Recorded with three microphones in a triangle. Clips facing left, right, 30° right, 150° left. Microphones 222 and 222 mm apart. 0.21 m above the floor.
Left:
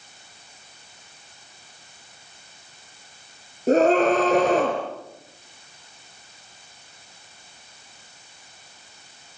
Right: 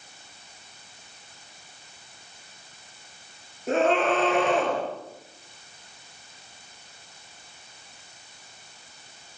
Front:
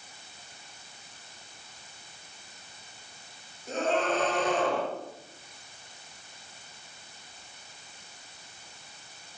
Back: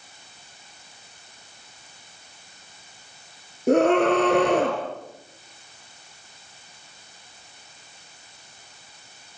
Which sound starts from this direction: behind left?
A scream, at 3.7 s.